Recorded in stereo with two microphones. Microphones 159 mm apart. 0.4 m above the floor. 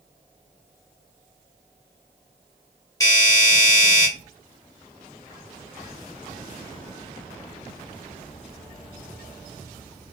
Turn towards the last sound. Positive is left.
turn(degrees=20)  # may be behind; listen again after turning